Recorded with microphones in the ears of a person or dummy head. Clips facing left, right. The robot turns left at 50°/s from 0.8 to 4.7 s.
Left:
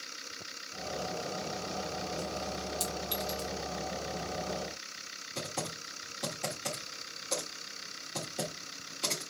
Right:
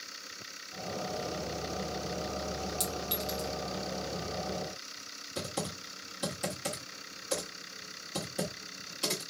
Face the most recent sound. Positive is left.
turn(degrees=-10)  # may be behind; listen again after turning